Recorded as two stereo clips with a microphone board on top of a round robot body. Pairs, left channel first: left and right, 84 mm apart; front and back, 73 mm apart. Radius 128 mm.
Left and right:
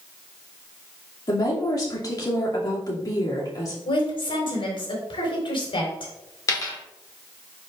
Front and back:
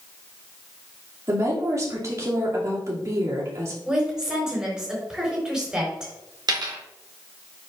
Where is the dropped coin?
145° left, 1.5 m.